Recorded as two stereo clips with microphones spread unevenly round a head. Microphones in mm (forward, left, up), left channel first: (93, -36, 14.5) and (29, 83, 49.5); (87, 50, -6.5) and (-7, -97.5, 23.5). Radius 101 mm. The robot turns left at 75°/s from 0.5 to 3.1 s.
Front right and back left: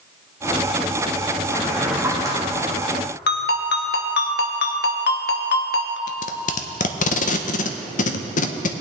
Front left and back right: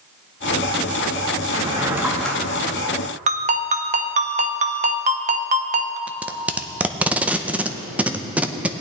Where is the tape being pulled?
55° right, 0.6 m.